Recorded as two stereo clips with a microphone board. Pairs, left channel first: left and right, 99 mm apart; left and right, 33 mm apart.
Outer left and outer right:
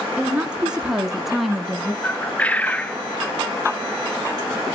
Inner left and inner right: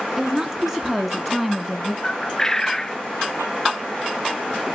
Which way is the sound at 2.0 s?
15° left (ahead or behind).